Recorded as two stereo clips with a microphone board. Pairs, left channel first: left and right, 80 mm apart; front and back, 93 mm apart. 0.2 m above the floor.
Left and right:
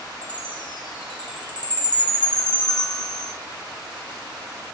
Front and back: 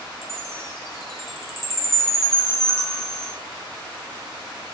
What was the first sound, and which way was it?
A chime, 120° left.